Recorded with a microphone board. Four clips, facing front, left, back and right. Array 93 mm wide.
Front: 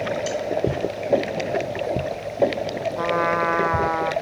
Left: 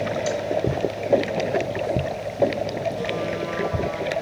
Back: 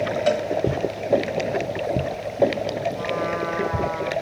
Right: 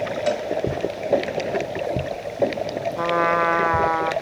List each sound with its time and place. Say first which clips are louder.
0.3 s a cowbell: right 2 dB, back 5 dB; 155° right, 3 m
3.0 s a trumpet: right 6 dB, front 4 dB; 60° right, 1.7 m